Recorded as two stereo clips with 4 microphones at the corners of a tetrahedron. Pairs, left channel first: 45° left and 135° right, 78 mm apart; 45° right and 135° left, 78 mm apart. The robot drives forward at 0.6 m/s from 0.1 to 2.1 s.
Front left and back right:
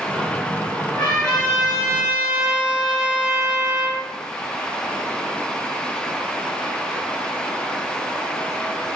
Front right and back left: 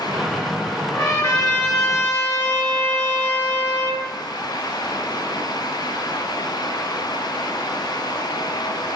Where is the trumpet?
30° right, 1.2 m; by 4.1 s 70° right, 0.8 m.